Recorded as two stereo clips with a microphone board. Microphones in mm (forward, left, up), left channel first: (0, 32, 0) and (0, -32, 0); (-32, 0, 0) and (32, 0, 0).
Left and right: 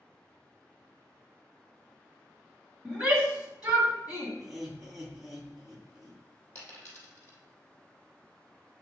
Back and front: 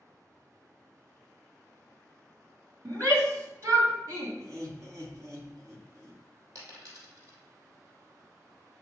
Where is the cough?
No cough in this recording.